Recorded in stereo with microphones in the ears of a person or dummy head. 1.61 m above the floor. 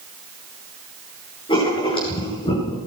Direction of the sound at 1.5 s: 25° left (ahead or behind).